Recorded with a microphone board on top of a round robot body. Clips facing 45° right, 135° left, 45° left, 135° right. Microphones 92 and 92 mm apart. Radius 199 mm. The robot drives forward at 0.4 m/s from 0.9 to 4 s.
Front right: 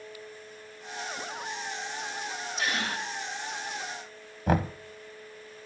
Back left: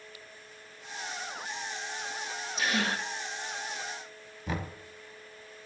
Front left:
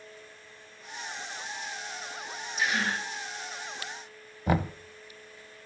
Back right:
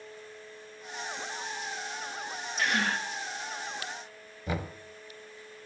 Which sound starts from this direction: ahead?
Knocking, at 4.5 s.